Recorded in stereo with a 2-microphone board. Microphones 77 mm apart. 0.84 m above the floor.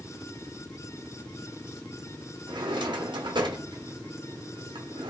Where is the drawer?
80° right, 0.8 m.